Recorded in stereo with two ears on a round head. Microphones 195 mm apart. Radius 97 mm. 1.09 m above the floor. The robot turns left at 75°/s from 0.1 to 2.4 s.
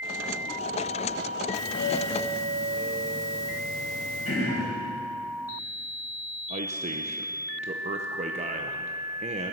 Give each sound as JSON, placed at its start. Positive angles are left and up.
{"t": 1.5, "sound": "a doorbell", "azimuth_deg": 85, "distance_m": 3.0}
{"t": 4.2, "sound": "throat clearing", "side_deg": 35, "distance_m": 4.5}
{"t": 6.5, "sound": "a man speaking", "side_deg": -30, "distance_m": 0.7}